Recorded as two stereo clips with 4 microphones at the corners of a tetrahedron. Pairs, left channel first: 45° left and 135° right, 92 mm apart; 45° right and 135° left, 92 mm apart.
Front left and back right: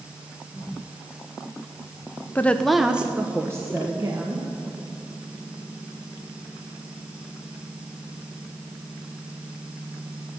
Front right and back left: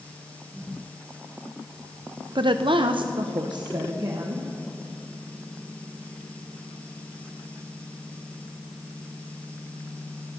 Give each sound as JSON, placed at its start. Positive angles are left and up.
{"t": 2.4, "sound": "a woman speaking", "azimuth_deg": 110, "distance_m": 0.5}